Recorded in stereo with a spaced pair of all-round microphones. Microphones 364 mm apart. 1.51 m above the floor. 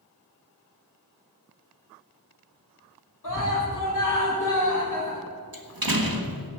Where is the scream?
55° left (ahead or behind), 4 m.